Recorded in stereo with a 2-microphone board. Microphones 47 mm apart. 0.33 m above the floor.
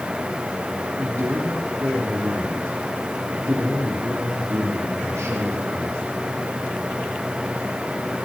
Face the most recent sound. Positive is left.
turn(degrees=-65)  # may be behind; listen again after turning